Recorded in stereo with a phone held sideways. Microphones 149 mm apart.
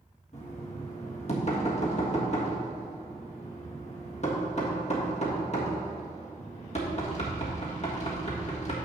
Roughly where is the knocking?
Left.